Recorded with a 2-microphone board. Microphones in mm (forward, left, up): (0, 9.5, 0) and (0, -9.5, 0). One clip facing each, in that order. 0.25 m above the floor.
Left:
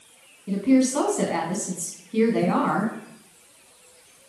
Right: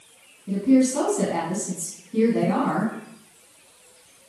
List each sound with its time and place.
0.5 s a woman speaking: 40° left (ahead or behind), 1.7 m